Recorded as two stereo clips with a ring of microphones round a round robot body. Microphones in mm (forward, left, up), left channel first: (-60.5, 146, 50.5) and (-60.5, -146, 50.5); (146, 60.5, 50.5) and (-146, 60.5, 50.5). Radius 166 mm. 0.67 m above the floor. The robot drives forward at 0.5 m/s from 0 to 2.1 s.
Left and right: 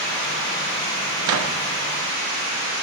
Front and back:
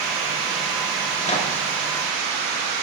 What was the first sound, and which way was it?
A microwave, 65° right.